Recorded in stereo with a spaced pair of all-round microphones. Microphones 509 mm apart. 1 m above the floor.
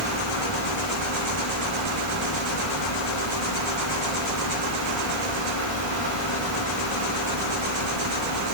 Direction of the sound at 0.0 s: 70° left (ahead or behind).